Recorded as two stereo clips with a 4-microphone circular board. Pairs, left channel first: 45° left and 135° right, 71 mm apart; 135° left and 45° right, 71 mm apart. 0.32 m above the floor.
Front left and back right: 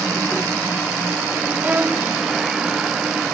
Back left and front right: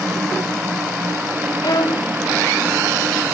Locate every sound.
1.6 s a violin: 160° left